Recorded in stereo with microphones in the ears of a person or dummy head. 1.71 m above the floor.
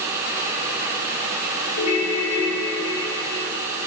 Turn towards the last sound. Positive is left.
turn(degrees=40)  # may be behind; listen again after turning